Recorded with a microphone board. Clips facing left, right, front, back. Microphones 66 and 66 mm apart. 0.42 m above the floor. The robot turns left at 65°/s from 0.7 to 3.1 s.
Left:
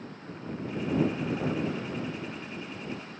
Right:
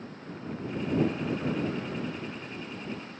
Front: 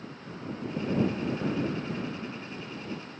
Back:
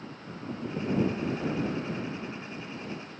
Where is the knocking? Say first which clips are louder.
Even, front 1 dB; 100° left; by 1.7 s 75° left.